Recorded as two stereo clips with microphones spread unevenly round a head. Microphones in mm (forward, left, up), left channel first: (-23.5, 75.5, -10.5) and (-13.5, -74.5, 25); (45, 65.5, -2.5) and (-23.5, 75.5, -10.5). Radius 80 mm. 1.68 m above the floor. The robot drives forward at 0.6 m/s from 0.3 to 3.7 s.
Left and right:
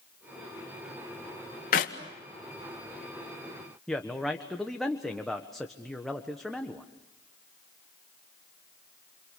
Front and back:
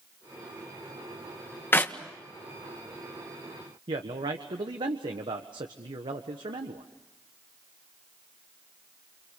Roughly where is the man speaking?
Behind.